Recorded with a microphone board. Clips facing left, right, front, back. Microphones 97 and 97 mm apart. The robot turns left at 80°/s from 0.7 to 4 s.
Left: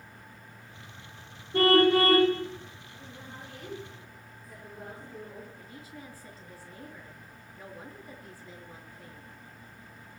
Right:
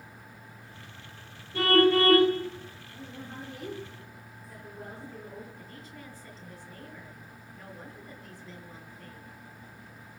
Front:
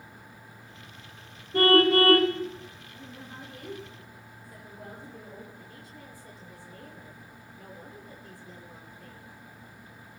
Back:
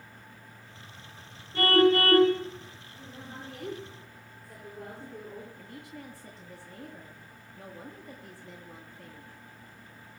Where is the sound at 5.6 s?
170° left, 5 m.